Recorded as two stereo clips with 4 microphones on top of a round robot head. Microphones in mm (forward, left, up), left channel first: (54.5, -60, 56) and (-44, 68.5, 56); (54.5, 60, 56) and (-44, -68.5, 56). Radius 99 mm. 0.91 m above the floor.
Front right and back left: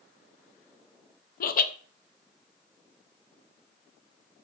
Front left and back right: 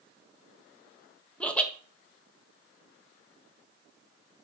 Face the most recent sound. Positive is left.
turn(degrees=-30)